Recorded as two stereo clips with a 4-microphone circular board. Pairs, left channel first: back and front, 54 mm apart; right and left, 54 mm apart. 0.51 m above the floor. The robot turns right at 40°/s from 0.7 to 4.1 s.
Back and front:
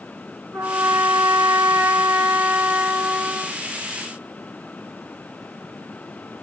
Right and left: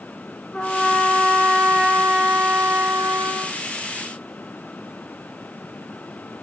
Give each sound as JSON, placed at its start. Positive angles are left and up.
{"t": 0.5, "sound": "a trumpet", "azimuth_deg": -20, "distance_m": 2.5}